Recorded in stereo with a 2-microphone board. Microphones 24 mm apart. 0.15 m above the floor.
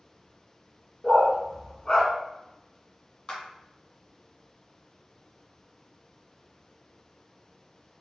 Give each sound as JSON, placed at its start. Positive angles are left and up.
{"t": 1.0, "sound": "a dog barking", "side_deg": -30, "distance_m": 0.9}
{"t": 3.3, "sound": "a clap", "side_deg": 25, "distance_m": 1.1}